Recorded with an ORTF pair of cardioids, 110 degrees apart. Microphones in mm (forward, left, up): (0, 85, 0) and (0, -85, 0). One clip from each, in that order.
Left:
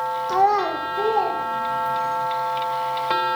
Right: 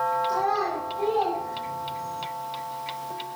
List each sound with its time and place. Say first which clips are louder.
0.3 s a child speaking: left 6 dB; 45° left, 0.7 m; by 2.2 s 70° left, 2 m